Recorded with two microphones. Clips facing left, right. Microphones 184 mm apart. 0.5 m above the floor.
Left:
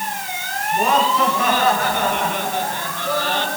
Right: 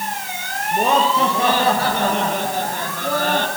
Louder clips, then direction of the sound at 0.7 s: Right 1 dB; 25° right (ahead or behind).